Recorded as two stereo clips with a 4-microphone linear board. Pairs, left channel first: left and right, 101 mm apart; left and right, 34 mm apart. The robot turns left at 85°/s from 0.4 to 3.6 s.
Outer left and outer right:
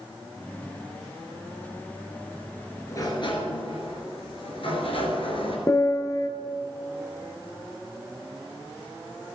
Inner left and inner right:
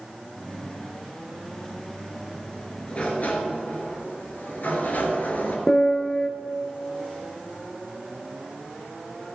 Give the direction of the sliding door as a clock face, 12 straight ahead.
7 o'clock.